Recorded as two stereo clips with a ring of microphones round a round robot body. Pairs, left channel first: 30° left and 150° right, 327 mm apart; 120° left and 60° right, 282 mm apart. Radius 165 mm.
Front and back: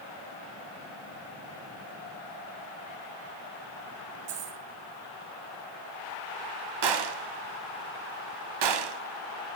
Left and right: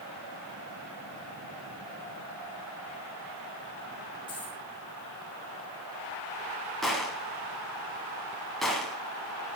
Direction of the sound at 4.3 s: 165° right.